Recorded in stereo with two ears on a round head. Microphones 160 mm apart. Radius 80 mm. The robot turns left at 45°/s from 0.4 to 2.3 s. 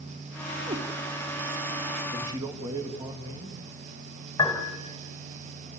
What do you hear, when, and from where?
0.7 s a cat meowing: 30° right (ahead or behind), 1.9 m; by 0.8 s 20° right (ahead or behind), 1.9 m
2.1 s a man speaking: 30° right (ahead or behind), 2.5 m; by 3.6 s 25° right (ahead or behind), 2.5 m
4.4 s a piano: 20° left (ahead or behind), 3.5 m